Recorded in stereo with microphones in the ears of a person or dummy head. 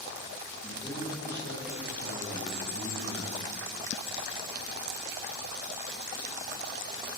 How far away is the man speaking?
About 1.7 m.